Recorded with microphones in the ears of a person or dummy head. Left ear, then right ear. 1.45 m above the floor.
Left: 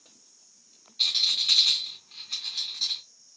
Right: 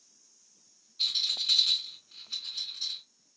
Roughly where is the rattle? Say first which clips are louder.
Left 5 dB; centre.